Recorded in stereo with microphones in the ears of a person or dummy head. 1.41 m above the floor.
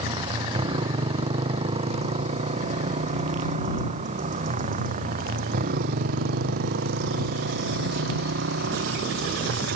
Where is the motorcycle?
30° right (ahead or behind); by 9.8 s 70° right (ahead or behind).